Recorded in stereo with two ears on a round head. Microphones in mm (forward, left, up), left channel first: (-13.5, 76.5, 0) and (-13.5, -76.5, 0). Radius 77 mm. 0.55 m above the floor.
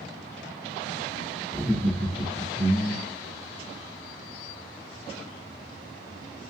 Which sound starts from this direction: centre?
Laughter, at 1.5 s.